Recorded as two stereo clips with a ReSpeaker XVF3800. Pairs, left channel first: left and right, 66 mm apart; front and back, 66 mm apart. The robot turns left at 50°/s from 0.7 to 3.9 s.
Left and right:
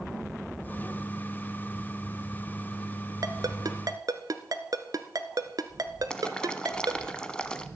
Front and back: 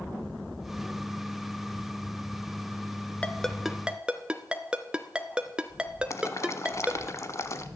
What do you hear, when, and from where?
3.2 s a ringtone: 70° right, 1.0 m; by 7.1 s 105° right, 1.0 m
6.1 s boiling: 15° left, 0.9 m